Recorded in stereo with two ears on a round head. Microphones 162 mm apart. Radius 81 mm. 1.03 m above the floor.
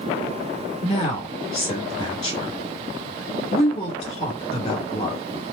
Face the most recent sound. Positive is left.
turn(degrees=35)  # may be behind; listen again after turning